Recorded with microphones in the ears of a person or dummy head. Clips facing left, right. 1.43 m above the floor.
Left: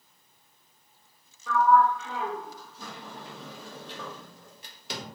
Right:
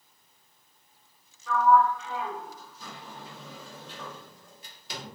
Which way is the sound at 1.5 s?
65° left (ahead or behind).